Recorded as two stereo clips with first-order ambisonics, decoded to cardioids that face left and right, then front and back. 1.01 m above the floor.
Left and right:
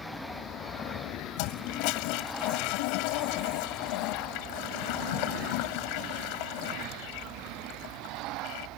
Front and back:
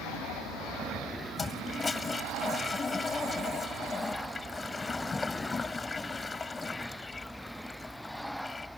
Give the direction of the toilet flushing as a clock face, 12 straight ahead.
9 o'clock.